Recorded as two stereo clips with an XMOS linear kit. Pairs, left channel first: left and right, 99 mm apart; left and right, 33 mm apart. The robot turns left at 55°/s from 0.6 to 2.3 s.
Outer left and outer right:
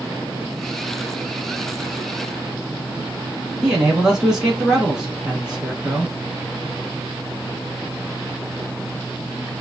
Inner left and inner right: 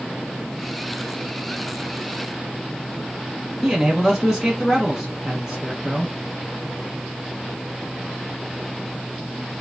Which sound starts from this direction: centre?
A man speaking, at 3.6 s.